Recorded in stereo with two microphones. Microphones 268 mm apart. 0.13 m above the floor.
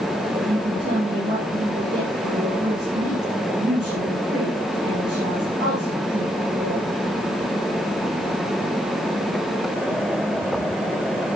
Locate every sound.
0.3 s a woman speaking: 40° right (ahead or behind), 6.5 m